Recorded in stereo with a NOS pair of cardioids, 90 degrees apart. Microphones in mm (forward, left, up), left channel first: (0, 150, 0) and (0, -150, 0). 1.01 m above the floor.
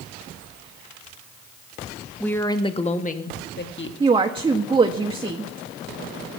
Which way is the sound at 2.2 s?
5° left.